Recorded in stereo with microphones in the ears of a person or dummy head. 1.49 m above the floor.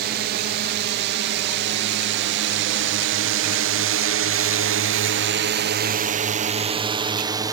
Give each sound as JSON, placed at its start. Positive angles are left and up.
{"t": 0.0, "sound": "a drone", "side_deg": -55}